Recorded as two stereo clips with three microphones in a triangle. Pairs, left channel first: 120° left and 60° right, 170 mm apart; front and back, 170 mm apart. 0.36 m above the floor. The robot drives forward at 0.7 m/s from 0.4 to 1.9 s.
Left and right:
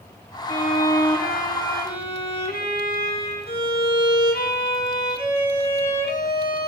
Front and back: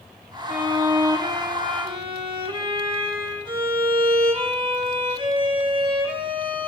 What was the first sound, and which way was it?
A violin, 105° left.